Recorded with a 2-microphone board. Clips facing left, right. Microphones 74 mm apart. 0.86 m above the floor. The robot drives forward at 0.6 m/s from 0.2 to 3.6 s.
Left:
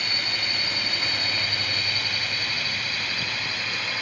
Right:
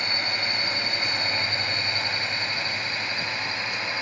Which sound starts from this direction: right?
A drone, at 0.0 s.